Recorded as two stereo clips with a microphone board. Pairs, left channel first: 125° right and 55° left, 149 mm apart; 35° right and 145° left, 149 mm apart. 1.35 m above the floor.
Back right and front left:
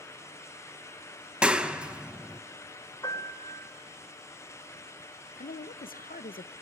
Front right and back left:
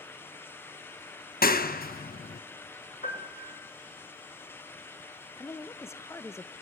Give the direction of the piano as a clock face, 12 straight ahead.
2 o'clock.